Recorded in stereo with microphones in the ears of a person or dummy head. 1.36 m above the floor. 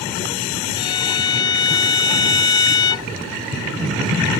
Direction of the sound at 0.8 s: 20° left (ahead or behind).